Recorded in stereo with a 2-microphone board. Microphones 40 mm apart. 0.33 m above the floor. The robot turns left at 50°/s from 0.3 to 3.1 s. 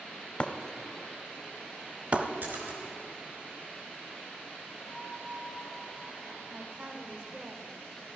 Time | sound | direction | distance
0.4 | breaking glass | 25° left (ahead or behind) | 0.9 m
2.4 | a splash | 50° right (ahead or behind) | 4 m
4.8 | a flute | 10° left (ahead or behind) | 5 m
6.5 | a man speaking | 20° right (ahead or behind) | 1.2 m